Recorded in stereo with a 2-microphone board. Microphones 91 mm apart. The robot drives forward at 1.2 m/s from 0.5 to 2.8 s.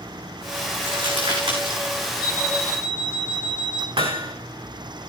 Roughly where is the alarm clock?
Centre.